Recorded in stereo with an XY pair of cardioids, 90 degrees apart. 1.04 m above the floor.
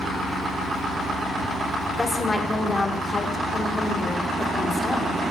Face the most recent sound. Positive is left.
turn(degrees=25)